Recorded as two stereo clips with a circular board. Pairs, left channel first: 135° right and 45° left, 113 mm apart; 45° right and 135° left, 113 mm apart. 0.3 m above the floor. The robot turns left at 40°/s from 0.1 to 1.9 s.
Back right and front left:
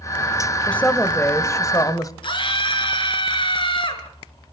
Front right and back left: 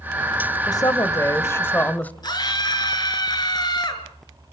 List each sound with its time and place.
0.7 s a woman speaking: 60° right, 1.4 m; by 2.1 s 110° right, 1.4 m
2.2 s a scream: 95° right, 5 m